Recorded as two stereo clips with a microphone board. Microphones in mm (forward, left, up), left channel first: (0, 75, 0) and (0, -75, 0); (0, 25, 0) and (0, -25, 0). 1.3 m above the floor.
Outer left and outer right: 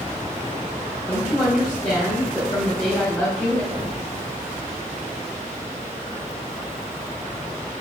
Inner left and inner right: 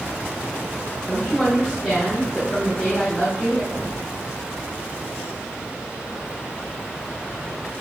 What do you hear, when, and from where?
1.1 s a woman speaking: 10° left (ahead or behind), 1.2 m
3.7 s an explosion: 20° right (ahead or behind), 1.5 m